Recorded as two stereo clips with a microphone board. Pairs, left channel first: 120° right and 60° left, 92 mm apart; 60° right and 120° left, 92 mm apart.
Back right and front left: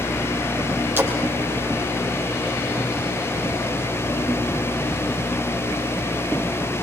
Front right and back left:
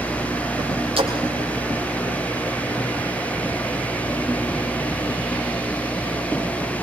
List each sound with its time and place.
1.0 s a splash: 125° left, 5 m